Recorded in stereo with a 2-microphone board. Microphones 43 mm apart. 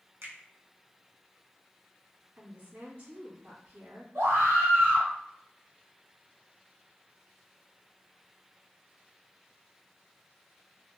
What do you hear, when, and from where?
0.2 s a finger snap: 75° right (ahead or behind), 0.9 m
2.4 s a woman speaking: 45° right (ahead or behind), 2.0 m
4.2 s a scream: 85° right, 1.7 m